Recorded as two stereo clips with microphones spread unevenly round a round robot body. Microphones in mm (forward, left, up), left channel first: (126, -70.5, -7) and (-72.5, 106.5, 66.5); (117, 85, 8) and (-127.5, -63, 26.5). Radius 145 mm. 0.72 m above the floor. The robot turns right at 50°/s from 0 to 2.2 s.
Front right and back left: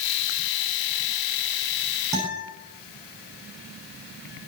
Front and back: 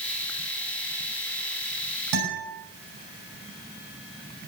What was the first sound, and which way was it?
A guitar, 140° right.